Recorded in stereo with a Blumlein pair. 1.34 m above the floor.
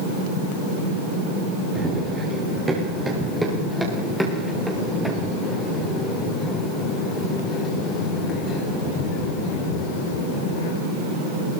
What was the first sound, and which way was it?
Running footsteps, 20° right.